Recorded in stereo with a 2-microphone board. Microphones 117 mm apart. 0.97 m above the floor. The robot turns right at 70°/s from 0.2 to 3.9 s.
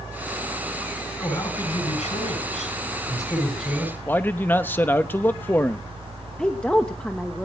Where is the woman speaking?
10° left (ahead or behind), 1.1 m.